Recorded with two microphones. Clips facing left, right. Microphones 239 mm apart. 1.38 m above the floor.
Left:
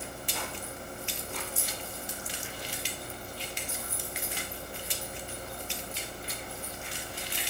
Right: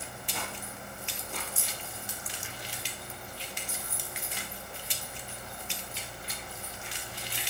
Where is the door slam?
I don't hear a door slam.